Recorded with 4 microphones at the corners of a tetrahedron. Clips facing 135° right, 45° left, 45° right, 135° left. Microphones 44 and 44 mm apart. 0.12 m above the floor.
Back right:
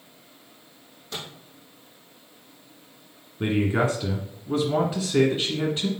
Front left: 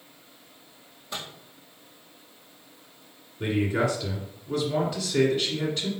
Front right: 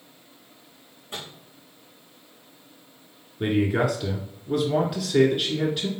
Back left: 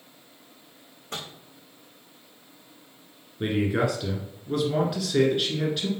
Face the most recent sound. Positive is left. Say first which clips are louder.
# back right 2 dB, front right 2 dB
turn(degrees=-125)